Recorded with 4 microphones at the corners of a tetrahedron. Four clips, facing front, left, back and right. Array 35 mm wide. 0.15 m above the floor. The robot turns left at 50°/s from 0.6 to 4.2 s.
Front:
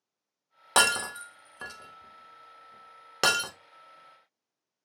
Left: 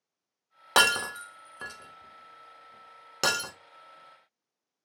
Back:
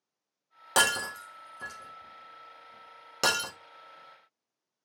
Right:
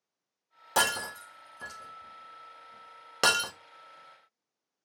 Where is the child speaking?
I don't hear a child speaking.